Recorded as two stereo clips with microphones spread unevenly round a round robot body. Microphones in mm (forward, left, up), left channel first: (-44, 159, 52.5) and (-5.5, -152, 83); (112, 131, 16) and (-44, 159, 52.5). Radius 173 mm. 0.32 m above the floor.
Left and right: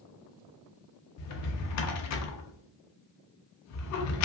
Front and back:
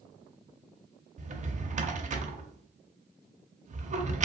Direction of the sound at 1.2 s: 120° left.